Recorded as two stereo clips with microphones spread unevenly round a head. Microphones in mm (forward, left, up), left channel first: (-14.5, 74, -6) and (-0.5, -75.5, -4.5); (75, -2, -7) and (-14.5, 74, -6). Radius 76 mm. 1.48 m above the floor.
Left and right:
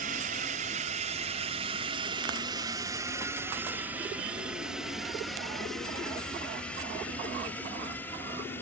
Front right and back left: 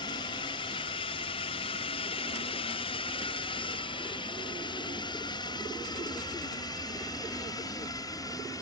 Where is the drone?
85° right; by 8.6 s 20° left.